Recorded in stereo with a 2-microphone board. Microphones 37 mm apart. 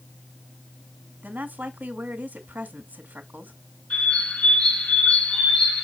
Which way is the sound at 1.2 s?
55° right (ahead or behind).